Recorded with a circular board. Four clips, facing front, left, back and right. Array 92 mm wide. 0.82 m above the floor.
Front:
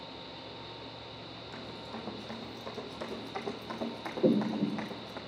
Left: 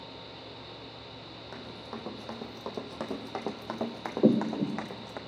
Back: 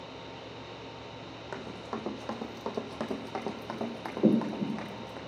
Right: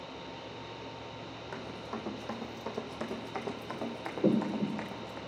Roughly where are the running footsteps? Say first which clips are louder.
Right 1 dB, back 6 dB; behind.